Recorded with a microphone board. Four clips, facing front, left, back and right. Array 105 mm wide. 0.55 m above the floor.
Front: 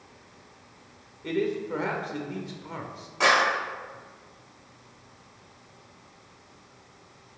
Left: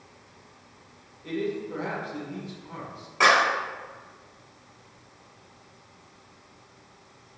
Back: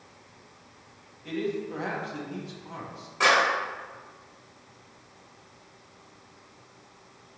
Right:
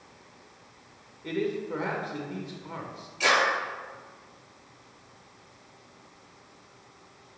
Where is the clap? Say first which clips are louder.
Left 4 dB, even; 85° left, 3.5 m.